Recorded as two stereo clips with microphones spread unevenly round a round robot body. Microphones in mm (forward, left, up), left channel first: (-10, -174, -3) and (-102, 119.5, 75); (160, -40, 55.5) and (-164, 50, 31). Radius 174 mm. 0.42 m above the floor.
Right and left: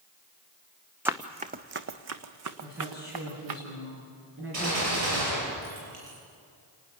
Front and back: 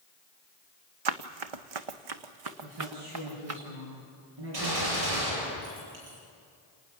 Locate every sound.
1.1 s running footsteps: 175° right, 1.1 m; by 3.6 s 115° left, 2.5 m
2.6 s a woman speaking: 160° left, 6 m
4.5 s a gunshot: 145° left, 9 m